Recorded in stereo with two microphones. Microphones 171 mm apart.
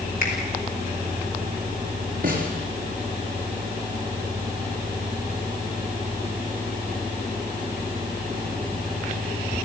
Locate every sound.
0.2 s a finger snap: 55° left (ahead or behind), 6.5 m
2.2 s a snare drum: 55° right (ahead or behind), 5 m